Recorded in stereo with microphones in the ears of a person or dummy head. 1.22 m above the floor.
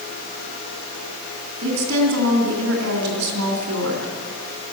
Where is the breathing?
I don't hear breathing.